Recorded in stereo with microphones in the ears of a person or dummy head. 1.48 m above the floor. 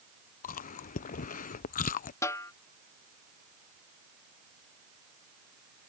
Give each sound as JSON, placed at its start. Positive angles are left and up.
{"t": 0.4, "sound": "chewing", "side_deg": 40}
{"t": 2.2, "sound": "a snare drum", "side_deg": 15}